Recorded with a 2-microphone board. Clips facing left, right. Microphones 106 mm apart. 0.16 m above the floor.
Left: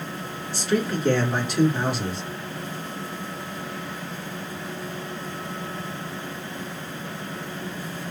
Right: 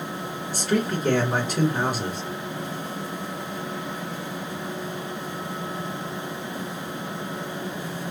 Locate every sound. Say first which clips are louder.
0.5 s a man speaking: even; 40° right (ahead or behind), 2.5 m